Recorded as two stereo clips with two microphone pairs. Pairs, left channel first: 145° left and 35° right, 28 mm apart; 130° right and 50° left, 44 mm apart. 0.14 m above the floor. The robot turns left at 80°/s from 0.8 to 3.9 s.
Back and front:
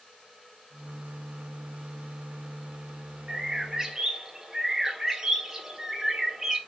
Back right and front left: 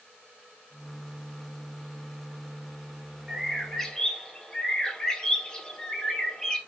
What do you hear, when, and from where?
3.3 s a bird: 25° right, 0.7 m; by 6.6 s 75° right, 0.7 m